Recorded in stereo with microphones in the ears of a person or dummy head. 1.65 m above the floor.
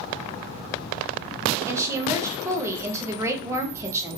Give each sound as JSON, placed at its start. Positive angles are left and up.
{"t": 1.7, "sound": "a woman speaking", "side_deg": -20, "distance_m": 0.6}